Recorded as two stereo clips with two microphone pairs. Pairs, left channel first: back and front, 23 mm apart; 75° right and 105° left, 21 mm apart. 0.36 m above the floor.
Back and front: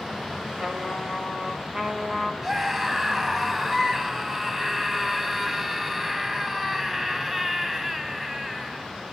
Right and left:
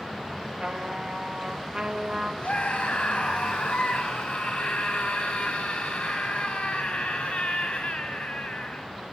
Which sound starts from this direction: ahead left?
A trumpet, at 0.6 s.